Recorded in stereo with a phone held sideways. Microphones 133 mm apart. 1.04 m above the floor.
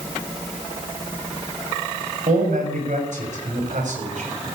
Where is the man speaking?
85° right, 7 m; by 4.6 s 80° right, 5 m.